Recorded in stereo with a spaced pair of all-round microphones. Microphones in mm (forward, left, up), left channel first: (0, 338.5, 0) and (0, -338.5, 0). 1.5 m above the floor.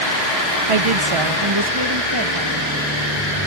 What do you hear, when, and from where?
0.7 s a woman speaking: 55° right (ahead or behind), 0.7 m; by 2.9 s 30° right (ahead or behind), 2.5 m